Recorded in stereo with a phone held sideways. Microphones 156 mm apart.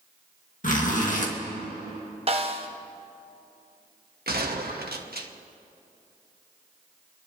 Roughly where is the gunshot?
Right.